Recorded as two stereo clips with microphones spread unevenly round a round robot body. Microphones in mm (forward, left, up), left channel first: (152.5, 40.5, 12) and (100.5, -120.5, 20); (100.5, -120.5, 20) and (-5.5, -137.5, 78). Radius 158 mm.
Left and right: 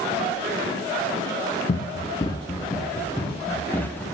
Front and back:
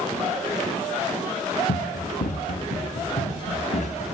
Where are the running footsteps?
20° left, 1.5 m; by 4.0 s 10° right, 4 m.